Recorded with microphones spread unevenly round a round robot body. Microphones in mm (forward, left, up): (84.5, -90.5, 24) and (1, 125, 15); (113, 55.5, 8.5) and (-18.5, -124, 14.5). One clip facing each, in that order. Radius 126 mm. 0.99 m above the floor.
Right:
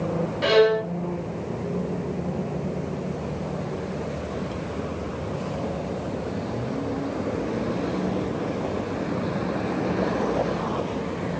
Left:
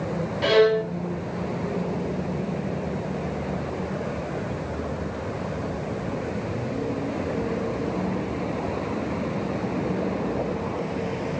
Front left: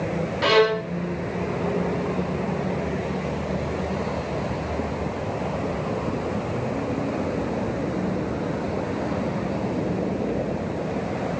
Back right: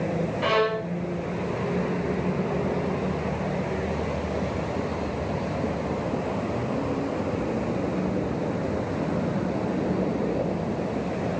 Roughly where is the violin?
Ahead.